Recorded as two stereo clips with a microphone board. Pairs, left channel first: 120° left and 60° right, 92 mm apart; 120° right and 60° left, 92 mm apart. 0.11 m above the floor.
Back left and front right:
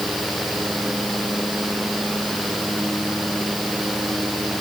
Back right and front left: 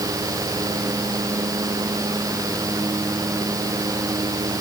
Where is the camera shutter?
I don't hear a camera shutter.